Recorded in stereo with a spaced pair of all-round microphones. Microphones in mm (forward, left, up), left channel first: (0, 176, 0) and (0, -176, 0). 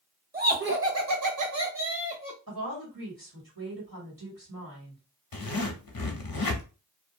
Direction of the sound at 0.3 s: 25° right (ahead or behind).